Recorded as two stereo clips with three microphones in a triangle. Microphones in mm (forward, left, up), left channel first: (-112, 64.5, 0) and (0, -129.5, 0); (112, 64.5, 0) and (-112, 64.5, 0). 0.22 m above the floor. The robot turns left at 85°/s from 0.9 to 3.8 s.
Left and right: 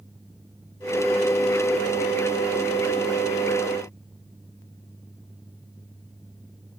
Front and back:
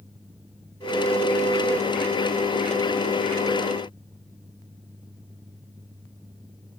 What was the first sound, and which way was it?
Only background noise.